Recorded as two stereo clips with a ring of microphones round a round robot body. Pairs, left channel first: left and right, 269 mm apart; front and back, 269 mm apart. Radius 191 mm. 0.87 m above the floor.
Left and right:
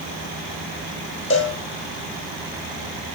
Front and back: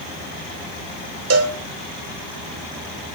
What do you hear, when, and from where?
1.3 s a cowbell: 150° left, 1.3 m